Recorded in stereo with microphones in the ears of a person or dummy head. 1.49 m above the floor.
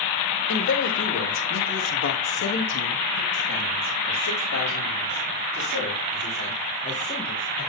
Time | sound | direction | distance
0.5 | a man speaking | 60° left (ahead or behind) | 1.7 m